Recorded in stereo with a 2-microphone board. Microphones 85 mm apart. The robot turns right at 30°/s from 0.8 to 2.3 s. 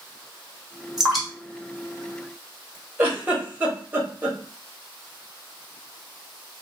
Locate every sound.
1.0 s dripping: 5° right (ahead or behind), 1.3 m; by 2.8 s 30° left (ahead or behind), 1.3 m
3.0 s a giggle: 20° right (ahead or behind), 1.0 m